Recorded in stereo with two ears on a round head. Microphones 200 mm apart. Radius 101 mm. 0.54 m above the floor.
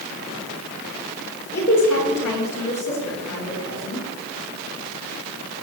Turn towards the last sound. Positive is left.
turn(degrees=70)  # may be behind; listen again after turning